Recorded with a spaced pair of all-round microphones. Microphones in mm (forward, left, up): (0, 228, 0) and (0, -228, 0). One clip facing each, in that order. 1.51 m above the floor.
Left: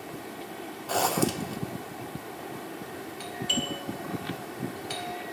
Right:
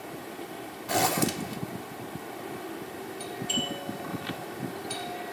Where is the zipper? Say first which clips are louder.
Left 1 dB; 40° right (ahead or behind), 0.5 m.